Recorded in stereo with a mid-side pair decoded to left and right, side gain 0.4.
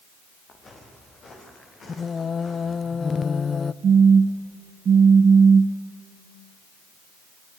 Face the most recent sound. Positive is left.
turn(degrees=-55)